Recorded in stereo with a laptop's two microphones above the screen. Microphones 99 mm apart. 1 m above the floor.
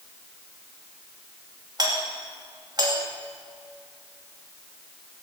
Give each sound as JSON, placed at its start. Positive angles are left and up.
{"t": 1.8, "sound": "a doorbell", "side_deg": -45, "distance_m": 2.5}